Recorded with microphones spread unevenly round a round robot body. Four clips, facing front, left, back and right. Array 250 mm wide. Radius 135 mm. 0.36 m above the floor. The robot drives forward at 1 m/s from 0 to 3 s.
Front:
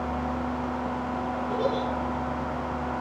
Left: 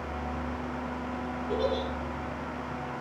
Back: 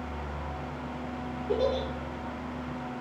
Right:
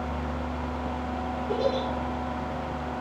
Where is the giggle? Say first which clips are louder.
Right 2 dB, back 1 dB; 170° right, 8 m.